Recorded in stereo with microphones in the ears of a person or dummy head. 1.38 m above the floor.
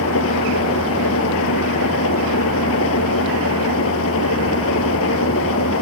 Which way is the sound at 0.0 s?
75° left (ahead or behind).